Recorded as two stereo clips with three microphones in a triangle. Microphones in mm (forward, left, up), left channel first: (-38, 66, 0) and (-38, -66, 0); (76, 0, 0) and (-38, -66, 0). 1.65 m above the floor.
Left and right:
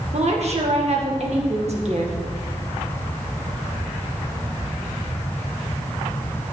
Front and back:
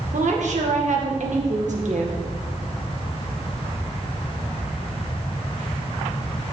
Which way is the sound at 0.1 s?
125° right.